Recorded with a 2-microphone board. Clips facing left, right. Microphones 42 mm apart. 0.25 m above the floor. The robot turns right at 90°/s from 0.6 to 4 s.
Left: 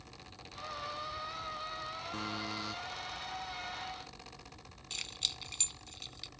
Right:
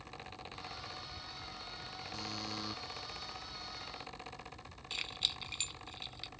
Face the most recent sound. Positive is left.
turn(degrees=-15)  # may be behind; listen again after turning